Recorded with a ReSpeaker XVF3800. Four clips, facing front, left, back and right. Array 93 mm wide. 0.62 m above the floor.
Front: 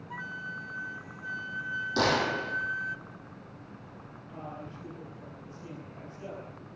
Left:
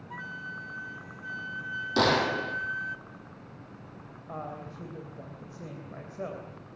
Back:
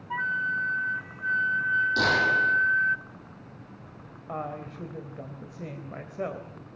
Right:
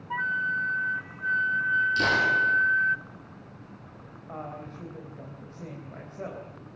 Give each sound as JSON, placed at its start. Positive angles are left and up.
{"t": 0.1, "sound": "a flute", "azimuth_deg": -130, "distance_m": 0.6}
{"t": 2.0, "sound": "a gunshot", "azimuth_deg": 80, "distance_m": 7.5}
{"t": 4.3, "sound": "a woman speaking", "azimuth_deg": 170, "distance_m": 3.5}